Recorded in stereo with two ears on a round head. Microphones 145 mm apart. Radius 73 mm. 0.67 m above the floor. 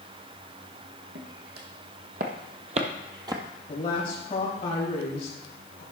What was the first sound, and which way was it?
Footsteps, 70° right (ahead or behind).